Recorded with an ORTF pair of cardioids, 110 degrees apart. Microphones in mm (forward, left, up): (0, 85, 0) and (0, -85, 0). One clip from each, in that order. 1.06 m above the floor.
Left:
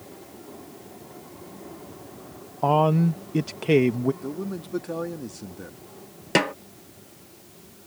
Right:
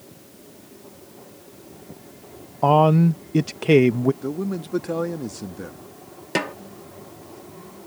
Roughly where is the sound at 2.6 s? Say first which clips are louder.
Right 4 dB; ahead.